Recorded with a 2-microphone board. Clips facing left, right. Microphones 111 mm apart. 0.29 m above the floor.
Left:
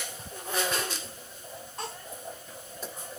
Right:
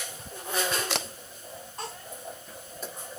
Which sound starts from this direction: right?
A camera shutter, at 0.9 s.